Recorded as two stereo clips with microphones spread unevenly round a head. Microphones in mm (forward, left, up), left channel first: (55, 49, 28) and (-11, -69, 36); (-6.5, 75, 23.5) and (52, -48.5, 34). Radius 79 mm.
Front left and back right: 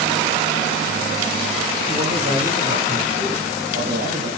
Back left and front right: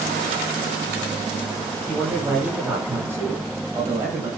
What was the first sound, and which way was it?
A man speaking, 145° right.